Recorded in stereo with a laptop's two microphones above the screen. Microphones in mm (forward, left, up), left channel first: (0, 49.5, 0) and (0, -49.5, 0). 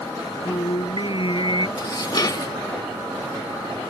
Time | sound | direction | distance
0.5 | singing | 55° left (ahead or behind) | ?
1.8 | dishes clattering | 45° left (ahead or behind) | ?